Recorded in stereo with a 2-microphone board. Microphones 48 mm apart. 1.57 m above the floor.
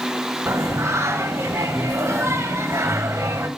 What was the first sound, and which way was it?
Singing, 80° right.